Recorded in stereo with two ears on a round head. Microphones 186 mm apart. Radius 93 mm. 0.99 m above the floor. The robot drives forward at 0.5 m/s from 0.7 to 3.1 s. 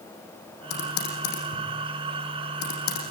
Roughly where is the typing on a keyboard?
Left.